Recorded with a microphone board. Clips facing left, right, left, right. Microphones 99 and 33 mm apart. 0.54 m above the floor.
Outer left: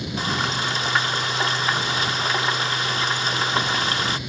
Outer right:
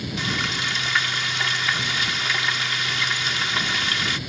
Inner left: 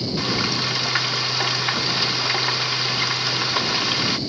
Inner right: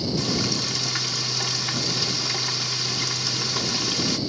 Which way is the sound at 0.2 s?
35° left (ahead or behind).